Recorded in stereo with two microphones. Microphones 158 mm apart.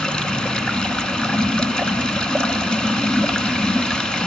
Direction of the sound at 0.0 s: 5° left (ahead or behind).